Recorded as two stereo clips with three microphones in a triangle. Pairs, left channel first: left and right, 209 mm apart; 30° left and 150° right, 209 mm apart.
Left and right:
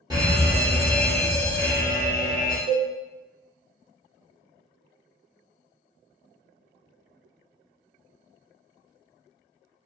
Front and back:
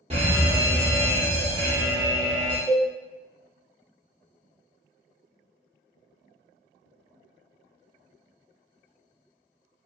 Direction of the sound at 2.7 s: 80° right.